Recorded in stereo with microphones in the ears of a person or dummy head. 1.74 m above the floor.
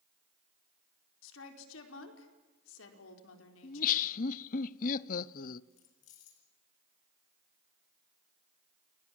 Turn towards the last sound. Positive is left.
turn(degrees=40)  # may be behind; listen again after turning